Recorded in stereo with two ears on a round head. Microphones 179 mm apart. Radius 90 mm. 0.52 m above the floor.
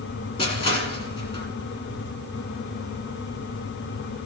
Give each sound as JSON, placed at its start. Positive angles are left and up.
{"t": 0.4, "sound": "crushing", "side_deg": 25, "distance_m": 2.0}